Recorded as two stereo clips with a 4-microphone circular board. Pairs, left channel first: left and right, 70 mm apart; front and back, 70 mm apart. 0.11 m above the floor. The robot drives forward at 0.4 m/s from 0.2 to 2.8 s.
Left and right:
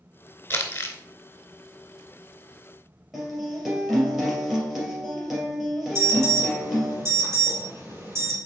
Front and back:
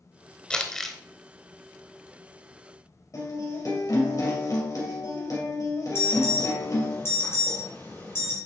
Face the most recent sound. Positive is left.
turn(degrees=-45)